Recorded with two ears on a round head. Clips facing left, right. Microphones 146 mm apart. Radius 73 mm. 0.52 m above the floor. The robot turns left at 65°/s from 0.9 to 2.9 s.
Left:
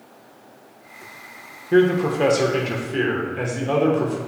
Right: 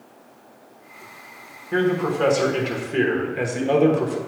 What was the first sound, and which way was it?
A man speaking, 55° left.